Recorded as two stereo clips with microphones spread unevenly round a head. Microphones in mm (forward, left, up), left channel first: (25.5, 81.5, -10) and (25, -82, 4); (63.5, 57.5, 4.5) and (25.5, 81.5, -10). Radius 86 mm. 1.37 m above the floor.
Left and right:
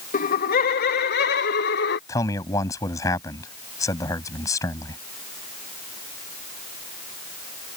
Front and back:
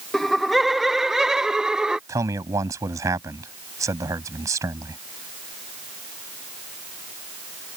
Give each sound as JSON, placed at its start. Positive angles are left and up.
{"t": 0.1, "sound": "laughter", "azimuth_deg": 45}
{"t": 2.1, "sound": "a man speaking", "azimuth_deg": 165}